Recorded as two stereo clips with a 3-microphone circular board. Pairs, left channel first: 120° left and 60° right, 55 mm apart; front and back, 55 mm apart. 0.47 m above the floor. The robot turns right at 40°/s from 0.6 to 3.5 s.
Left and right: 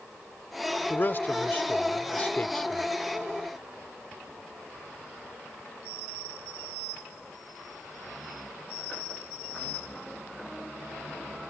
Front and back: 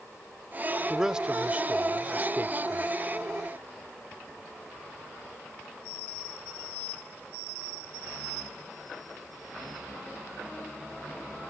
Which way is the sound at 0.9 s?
100° left.